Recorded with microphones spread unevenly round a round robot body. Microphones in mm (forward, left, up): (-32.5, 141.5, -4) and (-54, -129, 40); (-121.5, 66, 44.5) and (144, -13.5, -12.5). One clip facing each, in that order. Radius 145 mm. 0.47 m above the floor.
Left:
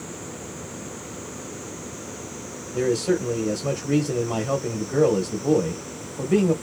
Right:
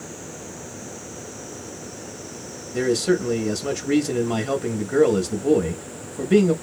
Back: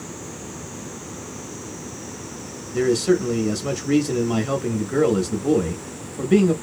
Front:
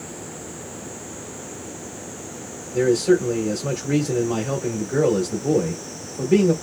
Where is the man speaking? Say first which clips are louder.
Right 1 dB, front 1 dB; 140° right, 0.7 m.